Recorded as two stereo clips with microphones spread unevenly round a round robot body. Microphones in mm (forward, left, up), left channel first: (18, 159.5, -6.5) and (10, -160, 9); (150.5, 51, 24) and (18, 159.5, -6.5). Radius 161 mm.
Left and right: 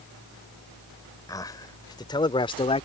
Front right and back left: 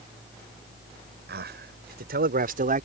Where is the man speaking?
170° left; by 2.9 s 155° left.